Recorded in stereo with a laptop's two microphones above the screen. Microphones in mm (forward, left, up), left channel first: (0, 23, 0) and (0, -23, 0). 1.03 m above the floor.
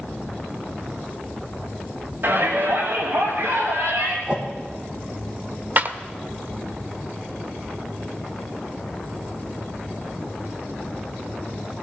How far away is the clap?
About 0.8 m.